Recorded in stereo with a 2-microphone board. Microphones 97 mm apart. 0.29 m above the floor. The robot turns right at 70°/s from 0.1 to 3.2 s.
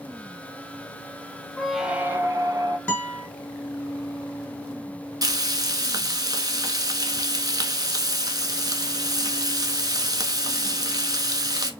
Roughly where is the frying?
Right.